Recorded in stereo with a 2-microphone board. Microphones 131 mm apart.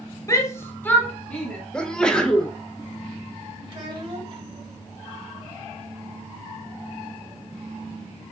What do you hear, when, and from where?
0.3 s a shout: 25° left (ahead or behind), 0.9 m; by 1.6 s 5° left (ahead or behind), 1.8 m
1.7 s a sneeze: 5° left (ahead or behind), 0.7 m
3.7 s a child speaking: 40° right (ahead or behind), 1.6 m